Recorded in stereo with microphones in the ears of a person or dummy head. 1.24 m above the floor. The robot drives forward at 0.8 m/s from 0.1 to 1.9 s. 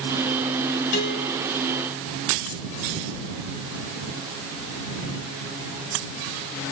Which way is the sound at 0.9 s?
60° left (ahead or behind).